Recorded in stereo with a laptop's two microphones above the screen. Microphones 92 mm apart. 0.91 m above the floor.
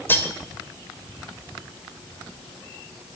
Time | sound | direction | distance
0.1 | cutlery clinking | 25° left (ahead or behind) | 1.8 m